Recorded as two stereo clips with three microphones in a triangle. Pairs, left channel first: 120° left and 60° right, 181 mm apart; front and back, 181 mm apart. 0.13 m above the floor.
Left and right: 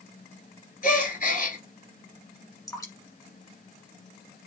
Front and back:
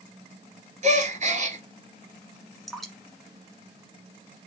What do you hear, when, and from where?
0.8 s a gasp: 140° left, 1.1 m
2.7 s dripping: 90° left, 1.4 m